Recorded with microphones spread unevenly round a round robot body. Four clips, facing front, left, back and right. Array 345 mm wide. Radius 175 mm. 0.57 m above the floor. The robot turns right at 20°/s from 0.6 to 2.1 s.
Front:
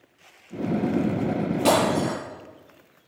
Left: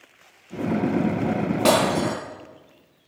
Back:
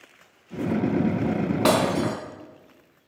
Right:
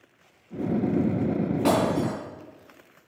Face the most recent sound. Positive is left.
turn(degrees=165)